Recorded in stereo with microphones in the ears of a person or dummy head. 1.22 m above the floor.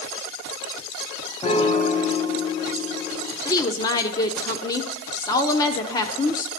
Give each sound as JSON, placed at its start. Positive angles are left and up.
{"t": 1.4, "sound": "a piano", "side_deg": 30, "distance_m": 0.6}
{"t": 3.5, "sound": "a woman speaking", "side_deg": 20, "distance_m": 0.6}